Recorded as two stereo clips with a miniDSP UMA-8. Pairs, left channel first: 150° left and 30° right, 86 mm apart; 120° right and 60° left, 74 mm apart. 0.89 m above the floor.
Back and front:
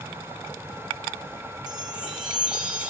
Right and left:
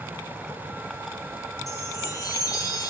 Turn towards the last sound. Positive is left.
turn(degrees=-110)